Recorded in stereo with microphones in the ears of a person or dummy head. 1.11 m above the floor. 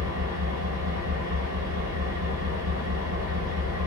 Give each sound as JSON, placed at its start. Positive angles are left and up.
{"t": 0.0, "sound": "an engine running", "side_deg": -70, "distance_m": 2.0}